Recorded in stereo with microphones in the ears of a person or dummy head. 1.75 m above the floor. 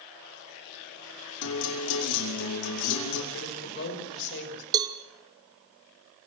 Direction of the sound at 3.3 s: 65° left (ahead or behind).